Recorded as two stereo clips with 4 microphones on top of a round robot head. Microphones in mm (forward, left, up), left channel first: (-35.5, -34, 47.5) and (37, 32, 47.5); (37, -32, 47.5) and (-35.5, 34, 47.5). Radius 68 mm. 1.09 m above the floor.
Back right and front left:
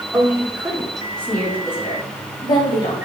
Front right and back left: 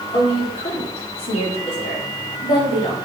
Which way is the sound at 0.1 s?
35° right.